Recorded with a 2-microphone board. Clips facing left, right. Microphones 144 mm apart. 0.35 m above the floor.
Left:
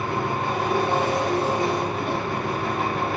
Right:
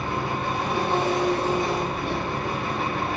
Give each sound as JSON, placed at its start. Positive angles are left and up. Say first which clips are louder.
{"t": 0.0, "sound": "an engine running", "louder": "left 2 dB", "side_deg": 50, "distance_m": 1.3}